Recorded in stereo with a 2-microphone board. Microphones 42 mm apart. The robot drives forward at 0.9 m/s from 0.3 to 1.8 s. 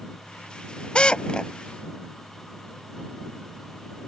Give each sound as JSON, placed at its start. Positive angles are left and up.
{"t": 0.9, "sound": "a drill", "side_deg": 25}